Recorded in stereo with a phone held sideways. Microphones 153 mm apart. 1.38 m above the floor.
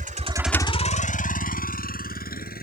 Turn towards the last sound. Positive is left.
turn(degrees=75)  # may be behind; listen again after turning